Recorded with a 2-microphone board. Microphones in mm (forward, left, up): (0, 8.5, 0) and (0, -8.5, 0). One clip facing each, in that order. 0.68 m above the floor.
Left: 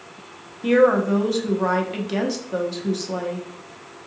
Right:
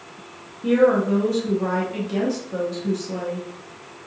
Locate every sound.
0.6 s a woman speaking: 25° left (ahead or behind), 0.6 m